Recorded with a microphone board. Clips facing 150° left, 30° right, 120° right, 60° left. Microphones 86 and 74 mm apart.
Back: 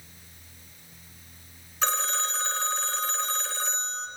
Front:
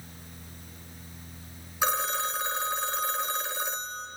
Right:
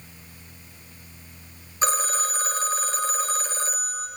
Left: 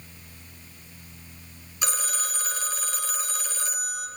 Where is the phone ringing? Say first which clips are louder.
Front 1 dB, right 7 dB; 100° right, 0.9 m.